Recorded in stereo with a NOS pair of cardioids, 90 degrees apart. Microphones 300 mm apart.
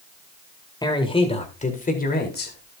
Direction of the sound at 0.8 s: 15° left.